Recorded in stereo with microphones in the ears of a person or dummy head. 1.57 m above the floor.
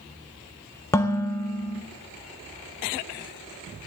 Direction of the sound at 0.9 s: 15° left (ahead or behind).